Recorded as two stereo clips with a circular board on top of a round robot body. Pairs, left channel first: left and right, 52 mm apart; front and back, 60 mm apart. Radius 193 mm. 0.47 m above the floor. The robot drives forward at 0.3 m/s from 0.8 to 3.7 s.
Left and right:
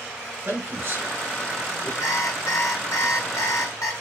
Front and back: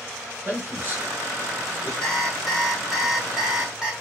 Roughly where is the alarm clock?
Left.